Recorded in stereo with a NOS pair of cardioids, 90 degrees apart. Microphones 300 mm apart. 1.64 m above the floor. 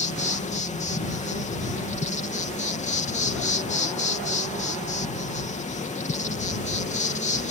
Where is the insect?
25° left.